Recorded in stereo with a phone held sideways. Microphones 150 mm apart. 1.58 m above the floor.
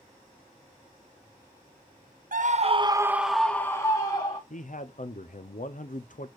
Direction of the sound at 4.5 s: 60° left (ahead or behind).